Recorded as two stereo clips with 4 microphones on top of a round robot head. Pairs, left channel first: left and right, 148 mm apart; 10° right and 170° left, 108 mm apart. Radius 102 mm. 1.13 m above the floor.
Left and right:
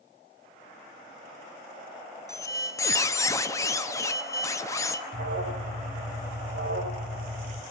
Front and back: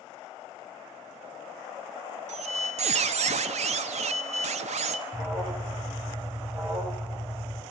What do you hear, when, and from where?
2.3 s a squeak: 160° left, 1.0 m
5.1 s an alarm: 100° right, 4 m